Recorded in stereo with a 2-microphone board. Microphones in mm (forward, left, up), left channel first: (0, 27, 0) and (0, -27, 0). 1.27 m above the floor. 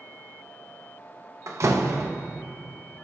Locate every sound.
1.5 s a door slam: 60° right (ahead or behind), 1.2 m